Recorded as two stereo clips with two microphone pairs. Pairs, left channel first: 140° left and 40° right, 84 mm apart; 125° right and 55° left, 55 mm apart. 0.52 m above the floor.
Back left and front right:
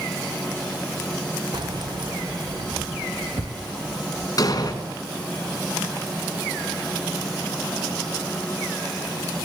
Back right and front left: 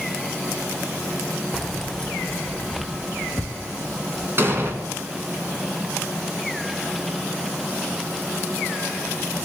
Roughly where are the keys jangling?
Ahead right.